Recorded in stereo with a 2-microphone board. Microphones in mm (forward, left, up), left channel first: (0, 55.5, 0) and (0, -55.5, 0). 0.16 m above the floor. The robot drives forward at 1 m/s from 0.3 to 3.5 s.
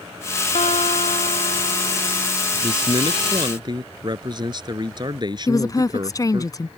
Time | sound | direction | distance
0.6 | a guitar | 85° left | ?
2.6 | a man speaking | 50° right (ahead or behind) | ?
5.5 | a woman speaking | 35° left (ahead or behind) | ?